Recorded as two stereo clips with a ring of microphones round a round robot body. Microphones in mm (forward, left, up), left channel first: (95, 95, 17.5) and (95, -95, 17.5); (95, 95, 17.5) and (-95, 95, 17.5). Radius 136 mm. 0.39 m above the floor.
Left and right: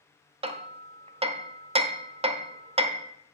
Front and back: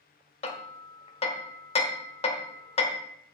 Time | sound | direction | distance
0.4 | hammering | 45° right | 1.0 m